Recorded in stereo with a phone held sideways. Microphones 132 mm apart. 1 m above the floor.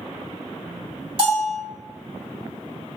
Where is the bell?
50° right (ahead or behind), 1.2 m.